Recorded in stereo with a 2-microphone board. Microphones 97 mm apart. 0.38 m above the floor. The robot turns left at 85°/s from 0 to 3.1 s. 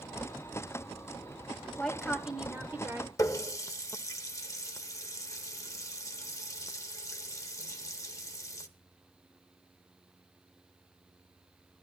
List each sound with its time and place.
1.8 s a woman speaking: 10° left (ahead or behind), 1.2 m; by 3.1 s 25° right (ahead or behind), 1.2 m
3.2 s a running tap: 30° left (ahead or behind), 0.7 m